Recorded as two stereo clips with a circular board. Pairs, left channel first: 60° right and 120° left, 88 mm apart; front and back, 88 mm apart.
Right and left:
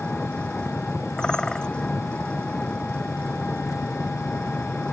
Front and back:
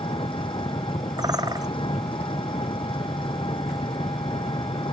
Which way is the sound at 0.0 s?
15° left.